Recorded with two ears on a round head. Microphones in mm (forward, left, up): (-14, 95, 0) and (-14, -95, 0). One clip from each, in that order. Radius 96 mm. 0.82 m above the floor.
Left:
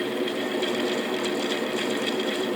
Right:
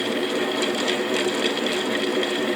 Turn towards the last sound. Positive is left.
No sound to turn to.